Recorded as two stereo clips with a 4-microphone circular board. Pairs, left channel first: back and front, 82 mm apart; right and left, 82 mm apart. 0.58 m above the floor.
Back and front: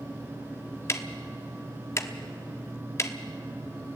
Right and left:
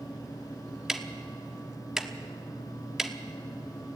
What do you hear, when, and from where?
0.9 s ticking: 170° left, 1.0 m